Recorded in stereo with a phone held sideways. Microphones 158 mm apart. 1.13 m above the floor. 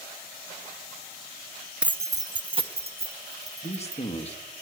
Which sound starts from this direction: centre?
Keys jangling, at 1.8 s.